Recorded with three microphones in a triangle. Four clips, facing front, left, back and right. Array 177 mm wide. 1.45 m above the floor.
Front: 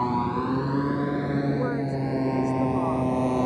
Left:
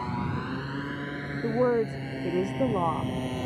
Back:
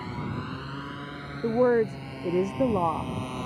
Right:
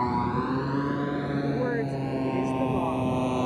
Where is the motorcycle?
35° right; by 3.5 s 20° right.